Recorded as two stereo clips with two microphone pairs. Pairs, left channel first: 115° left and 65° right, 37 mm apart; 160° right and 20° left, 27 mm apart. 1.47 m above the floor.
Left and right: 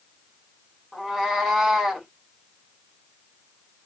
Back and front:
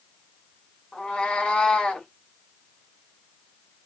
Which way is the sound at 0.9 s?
145° right.